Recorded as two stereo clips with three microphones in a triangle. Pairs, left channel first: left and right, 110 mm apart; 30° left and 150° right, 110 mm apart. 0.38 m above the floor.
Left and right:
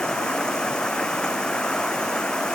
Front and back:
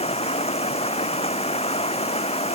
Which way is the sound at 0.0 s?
5° left.